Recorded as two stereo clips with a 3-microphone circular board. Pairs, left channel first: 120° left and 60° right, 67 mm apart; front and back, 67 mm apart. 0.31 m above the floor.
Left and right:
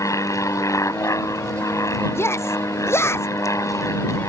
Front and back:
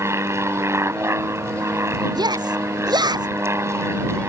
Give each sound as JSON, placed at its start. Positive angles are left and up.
{"t": 0.0, "sound": "an aircraft", "azimuth_deg": 140}
{"t": 2.1, "sound": "a shout", "azimuth_deg": 175}